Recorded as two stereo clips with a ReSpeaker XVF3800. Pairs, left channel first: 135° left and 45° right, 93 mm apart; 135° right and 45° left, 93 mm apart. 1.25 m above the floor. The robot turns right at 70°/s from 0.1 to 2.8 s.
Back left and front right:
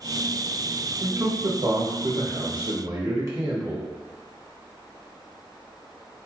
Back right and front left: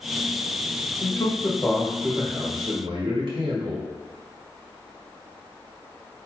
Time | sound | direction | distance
1.0 | a man speaking | 115° right | 1.5 m